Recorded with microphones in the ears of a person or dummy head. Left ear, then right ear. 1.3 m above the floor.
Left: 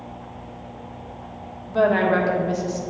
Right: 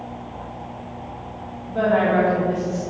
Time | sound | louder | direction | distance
1.7 | a woman speaking | even | 85° left | 1.2 m